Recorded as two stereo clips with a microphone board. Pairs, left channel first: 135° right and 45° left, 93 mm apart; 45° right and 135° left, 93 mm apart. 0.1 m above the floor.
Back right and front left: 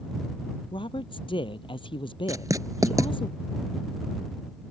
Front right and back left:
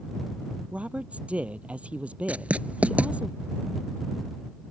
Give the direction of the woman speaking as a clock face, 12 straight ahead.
5 o'clock.